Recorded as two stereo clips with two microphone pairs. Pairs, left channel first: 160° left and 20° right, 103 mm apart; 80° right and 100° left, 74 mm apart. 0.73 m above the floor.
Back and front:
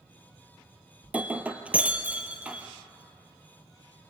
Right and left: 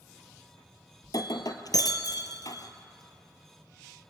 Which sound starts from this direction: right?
Breaking glass, at 1.0 s.